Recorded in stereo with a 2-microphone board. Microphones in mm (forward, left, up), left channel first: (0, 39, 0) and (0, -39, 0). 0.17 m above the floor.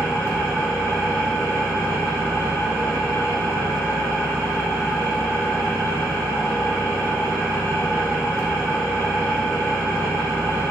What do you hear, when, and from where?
0.0 s an engine running: 40° left (ahead or behind), 2.5 m